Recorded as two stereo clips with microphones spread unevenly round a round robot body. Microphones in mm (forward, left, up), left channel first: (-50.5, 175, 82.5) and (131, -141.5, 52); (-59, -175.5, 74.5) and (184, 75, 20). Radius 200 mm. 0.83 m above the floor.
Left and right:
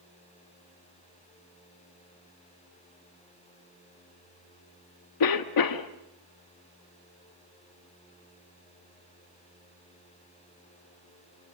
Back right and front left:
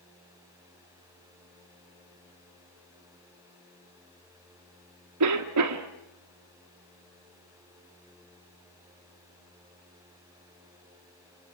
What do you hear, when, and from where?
5.2 s a cough: 90° left, 1.3 m